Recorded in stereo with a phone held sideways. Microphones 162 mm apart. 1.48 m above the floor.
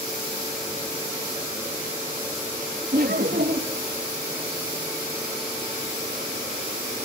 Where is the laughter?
70° right (ahead or behind), 2.5 m.